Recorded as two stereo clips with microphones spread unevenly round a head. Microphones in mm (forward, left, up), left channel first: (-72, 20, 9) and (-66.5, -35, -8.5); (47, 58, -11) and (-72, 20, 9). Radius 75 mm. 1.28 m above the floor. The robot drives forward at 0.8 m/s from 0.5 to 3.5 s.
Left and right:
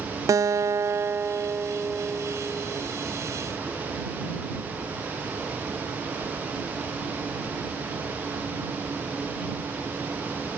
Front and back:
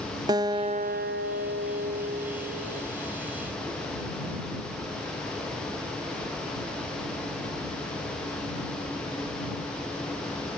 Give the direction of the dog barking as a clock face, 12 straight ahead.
I don't hear a dog barking.